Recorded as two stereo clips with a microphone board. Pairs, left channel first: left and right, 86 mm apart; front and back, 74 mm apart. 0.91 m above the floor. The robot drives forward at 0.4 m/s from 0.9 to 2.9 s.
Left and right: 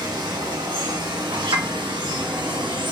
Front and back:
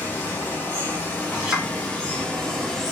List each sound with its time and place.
0.0 s running water: 60° right, 1.8 m; by 2.9 s 85° right, 1.6 m
1.3 s a clink: 100° right, 1.4 m; by 1.7 s 105° right, 1.4 m